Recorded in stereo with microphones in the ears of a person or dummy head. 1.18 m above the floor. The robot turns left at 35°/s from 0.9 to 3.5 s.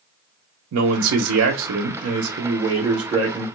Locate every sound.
0.7 s a man speaking: 80° right, 0.5 m; by 3.5 s 170° right, 0.5 m